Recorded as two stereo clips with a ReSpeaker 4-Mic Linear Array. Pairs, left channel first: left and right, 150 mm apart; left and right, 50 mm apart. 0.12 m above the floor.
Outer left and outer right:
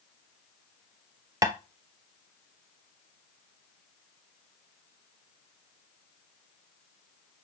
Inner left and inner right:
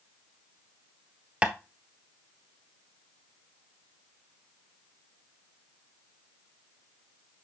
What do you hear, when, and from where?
1.4 s tapping: 25° right (ahead or behind), 0.7 m